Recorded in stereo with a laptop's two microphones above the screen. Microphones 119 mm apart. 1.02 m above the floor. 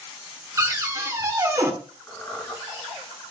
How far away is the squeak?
About 3 m.